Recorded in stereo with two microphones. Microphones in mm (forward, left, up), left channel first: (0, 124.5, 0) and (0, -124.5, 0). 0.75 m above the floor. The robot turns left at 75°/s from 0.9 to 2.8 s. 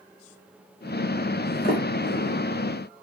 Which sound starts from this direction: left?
A sliding door, at 1.6 s.